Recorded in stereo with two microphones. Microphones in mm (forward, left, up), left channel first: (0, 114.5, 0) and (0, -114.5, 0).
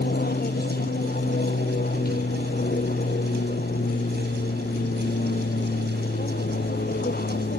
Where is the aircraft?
45° left (ahead or behind).